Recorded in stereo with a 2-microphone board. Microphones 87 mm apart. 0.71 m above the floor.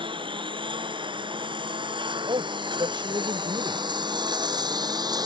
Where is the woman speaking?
70° right (ahead or behind).